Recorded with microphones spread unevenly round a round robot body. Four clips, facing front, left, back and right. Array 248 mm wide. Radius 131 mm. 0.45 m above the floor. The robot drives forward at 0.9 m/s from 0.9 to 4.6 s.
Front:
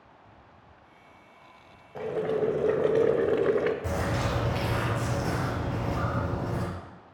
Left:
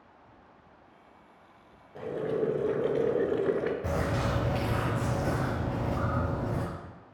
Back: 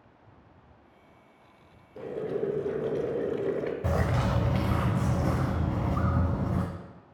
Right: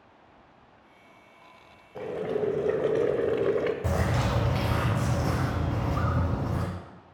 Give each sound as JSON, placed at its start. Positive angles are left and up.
{"t": 1.9, "sound": "boiling", "azimuth_deg": -5, "distance_m": 1.8}
{"t": 3.8, "sound": "a bird", "azimuth_deg": -170, "distance_m": 0.7}